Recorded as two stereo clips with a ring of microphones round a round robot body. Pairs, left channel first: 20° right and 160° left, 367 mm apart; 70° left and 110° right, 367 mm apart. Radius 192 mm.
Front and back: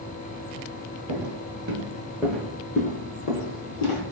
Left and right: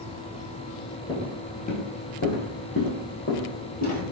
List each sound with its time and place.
1.1 s footsteps: 140° left, 0.9 m; by 4.0 s straight ahead, 1.1 m